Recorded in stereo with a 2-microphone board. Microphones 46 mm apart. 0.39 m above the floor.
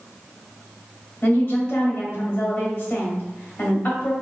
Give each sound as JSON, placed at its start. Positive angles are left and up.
{"t": 1.2, "sound": "a woman speaking", "side_deg": 40, "distance_m": 1.6}